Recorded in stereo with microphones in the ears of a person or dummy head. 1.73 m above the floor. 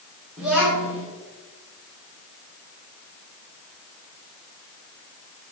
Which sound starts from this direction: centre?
A child speaking, at 0.4 s.